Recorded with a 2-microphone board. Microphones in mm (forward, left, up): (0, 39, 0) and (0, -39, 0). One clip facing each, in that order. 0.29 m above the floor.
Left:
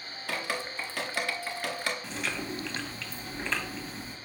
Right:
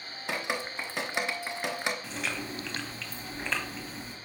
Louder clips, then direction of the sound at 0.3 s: Right 1 dB; 20° right (ahead or behind).